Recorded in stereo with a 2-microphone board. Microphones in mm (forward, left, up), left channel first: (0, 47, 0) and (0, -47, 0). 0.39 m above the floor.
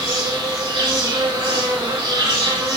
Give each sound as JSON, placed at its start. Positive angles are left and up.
{"t": 0.0, "sound": "an insect", "side_deg": -50, "distance_m": 2.5}